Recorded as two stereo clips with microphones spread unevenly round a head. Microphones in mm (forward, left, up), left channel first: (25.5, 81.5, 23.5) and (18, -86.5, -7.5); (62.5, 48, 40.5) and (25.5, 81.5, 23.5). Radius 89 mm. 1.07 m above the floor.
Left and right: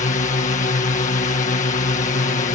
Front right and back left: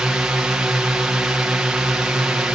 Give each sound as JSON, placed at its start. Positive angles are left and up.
{"t": 0.0, "sound": "a drone", "azimuth_deg": 105}